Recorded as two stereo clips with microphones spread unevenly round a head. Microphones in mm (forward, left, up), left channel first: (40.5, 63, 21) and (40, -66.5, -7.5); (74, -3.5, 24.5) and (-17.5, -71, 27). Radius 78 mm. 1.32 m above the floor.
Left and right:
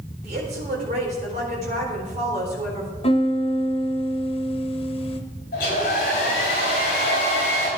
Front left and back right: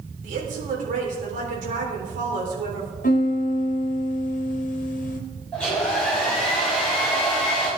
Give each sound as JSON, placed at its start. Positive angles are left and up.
{"t": 0.2, "sound": "a woman speaking", "azimuth_deg": -140, "distance_m": 4.0}
{"t": 3.0, "sound": "a piano", "azimuth_deg": 45, "distance_m": 1.4}
{"t": 5.5, "sound": "a hair dryer", "azimuth_deg": 120, "distance_m": 6.0}